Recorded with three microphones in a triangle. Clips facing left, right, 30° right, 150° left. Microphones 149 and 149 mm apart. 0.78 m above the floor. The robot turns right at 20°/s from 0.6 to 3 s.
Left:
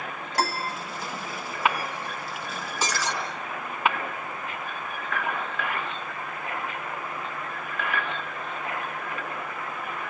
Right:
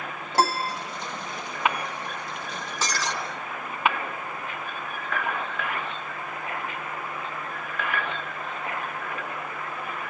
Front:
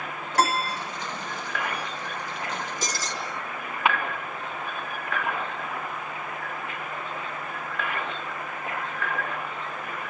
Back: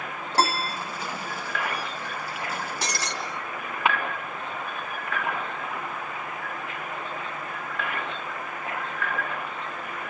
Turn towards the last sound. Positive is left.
turn(degrees=175)